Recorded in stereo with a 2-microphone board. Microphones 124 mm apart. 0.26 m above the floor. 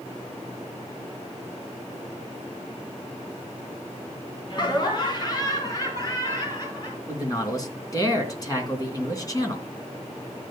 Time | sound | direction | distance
4.5 | laughter | 40° left (ahead or behind) | 2.5 m
7.1 | a man speaking | 30° left (ahead or behind) | 3 m